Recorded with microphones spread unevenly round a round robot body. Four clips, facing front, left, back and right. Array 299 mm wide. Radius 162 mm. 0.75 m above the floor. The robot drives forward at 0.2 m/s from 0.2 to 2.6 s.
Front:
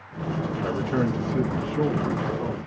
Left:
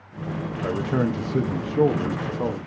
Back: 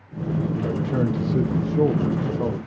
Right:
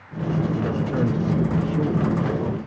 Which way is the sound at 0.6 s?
85° left.